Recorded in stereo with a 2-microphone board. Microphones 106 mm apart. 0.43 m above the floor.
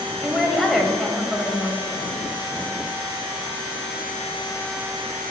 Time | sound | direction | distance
0.2 | a woman speaking | centre (ahead or behind) | 2 m